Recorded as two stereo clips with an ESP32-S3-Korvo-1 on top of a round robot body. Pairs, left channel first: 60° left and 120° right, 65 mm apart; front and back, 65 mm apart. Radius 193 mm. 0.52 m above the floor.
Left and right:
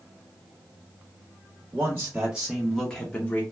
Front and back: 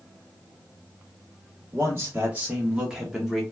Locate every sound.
1.7 s a man speaking: 155° right, 1.3 m; by 3.4 s 90° left, 1.2 m